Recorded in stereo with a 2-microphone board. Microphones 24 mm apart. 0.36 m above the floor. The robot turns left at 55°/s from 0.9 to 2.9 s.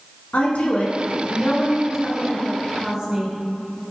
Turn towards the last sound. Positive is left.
turn(degrees=-35)